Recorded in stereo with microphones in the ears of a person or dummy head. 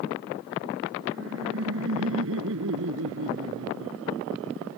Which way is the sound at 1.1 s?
75° right (ahead or behind).